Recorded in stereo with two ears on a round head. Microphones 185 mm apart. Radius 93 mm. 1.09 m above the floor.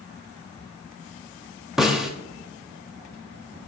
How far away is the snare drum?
About 0.7 m.